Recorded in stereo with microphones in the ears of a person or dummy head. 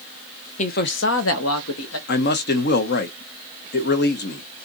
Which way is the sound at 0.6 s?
35° left (ahead or behind).